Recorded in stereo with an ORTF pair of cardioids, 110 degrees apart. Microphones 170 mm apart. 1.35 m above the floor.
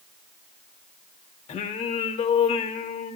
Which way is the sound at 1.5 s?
45° left.